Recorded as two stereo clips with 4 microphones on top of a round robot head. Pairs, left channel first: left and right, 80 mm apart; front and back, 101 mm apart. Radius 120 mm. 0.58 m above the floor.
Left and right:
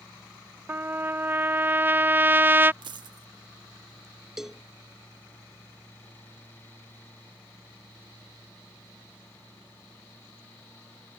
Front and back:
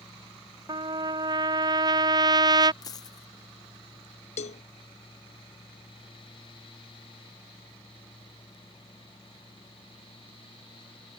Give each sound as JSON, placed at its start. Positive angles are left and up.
{"t": 0.7, "sound": "a trumpet", "azimuth_deg": -145}
{"t": 2.8, "sound": "a dropped coin", "azimuth_deg": -60}
{"t": 4.4, "sound": "a cowbell", "azimuth_deg": -5}